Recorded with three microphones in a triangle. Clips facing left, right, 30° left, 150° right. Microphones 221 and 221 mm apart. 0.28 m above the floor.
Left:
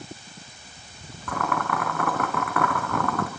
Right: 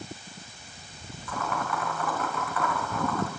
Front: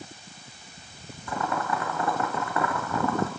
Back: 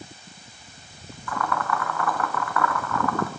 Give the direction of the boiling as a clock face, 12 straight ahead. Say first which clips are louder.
Left 4 dB, back 1 dB; 9 o'clock.